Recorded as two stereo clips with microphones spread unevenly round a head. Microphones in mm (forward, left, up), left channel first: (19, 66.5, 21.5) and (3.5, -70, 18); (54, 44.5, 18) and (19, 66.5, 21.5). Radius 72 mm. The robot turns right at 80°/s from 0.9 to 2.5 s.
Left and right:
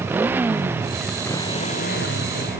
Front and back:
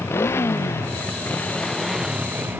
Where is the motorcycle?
20° right; by 2.6 s 110° left.